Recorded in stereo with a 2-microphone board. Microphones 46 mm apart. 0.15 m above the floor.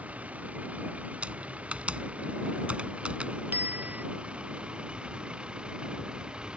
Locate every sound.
0.0 s a vehicle: 30° right (ahead or behind); by 6.6 s 20° right (ahead or behind)
1.2 s typing on a keyboard: 30° right (ahead or behind)
3.5 s a bicycle bell: 40° right (ahead or behind)